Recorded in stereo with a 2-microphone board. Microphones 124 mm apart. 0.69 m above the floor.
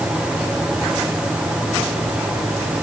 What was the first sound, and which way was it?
Only background noise.